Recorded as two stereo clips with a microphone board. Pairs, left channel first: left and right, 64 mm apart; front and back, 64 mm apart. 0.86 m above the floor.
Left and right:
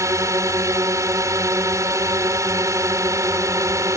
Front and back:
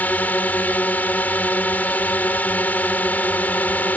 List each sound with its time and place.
0.0 s a drone: 60° right